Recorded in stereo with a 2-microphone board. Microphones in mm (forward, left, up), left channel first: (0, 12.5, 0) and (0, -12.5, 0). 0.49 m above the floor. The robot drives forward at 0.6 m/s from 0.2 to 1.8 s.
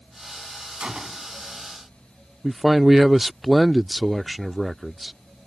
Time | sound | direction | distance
0.8 | a gunshot | 40° right (ahead or behind) | ?
2.4 | a man speaking | 10° right (ahead or behind) | ?